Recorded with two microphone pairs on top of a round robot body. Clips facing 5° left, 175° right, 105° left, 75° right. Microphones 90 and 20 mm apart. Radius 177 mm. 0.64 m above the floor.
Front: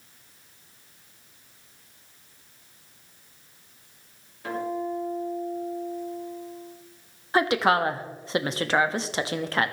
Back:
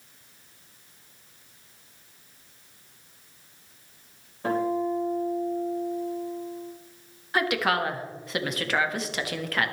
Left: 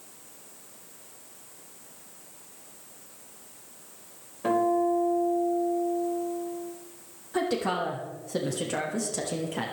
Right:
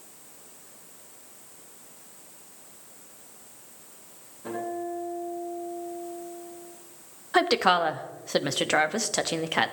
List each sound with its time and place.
4.4 s a guitar: 135° left, 3.5 m
7.3 s a woman speaking: 55° right, 1.4 m